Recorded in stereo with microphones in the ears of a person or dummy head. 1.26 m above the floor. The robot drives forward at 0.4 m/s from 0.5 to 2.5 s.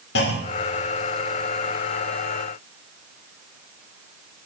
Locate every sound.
0.1 s a clunk: 50° left (ahead or behind), 1.0 m; by 0.9 s 45° left (ahead or behind), 1.1 m